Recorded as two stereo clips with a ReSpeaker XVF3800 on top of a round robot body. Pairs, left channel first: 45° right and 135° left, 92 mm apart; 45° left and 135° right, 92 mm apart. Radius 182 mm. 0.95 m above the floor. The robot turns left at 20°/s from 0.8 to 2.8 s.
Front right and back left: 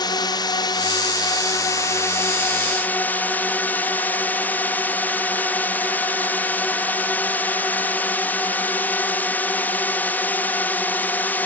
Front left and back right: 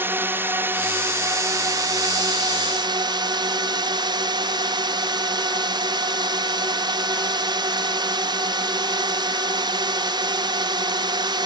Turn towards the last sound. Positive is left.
turn(degrees=-115)